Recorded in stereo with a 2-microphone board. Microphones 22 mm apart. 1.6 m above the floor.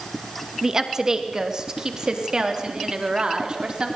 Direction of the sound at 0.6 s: 20° right (ahead or behind).